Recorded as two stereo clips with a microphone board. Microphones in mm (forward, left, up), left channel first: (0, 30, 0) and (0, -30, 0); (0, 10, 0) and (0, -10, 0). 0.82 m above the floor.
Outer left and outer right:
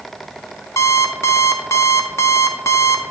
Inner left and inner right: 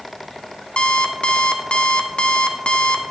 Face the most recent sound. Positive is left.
turn(degrees=60)  # may be behind; listen again after turning